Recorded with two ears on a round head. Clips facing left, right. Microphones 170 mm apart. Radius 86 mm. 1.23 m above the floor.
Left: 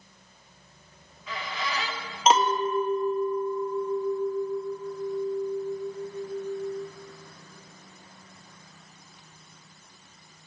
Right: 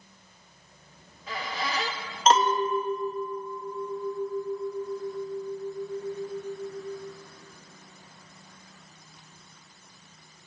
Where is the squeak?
30° right (ahead or behind), 1.0 m.